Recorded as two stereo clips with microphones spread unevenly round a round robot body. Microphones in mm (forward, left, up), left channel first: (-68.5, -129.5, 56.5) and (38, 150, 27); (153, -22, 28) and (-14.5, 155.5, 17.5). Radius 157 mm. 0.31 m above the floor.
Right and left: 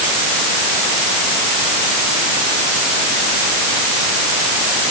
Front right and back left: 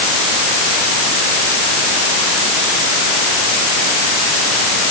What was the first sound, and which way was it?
Only background noise.